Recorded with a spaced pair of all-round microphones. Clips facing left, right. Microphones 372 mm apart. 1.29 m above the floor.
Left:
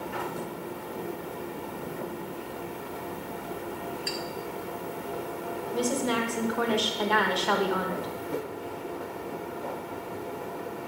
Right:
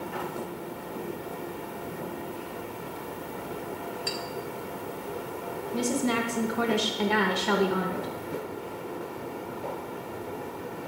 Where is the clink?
15° right (ahead or behind), 1.6 m.